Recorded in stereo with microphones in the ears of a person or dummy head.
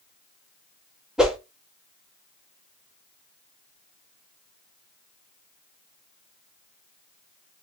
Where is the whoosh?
5° right (ahead or behind), 0.7 m.